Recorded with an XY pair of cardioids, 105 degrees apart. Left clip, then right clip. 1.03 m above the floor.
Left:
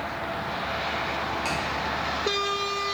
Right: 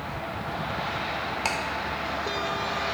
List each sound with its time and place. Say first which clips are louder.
1.4 s ticking: right 3 dB; 45° right, 0.7 m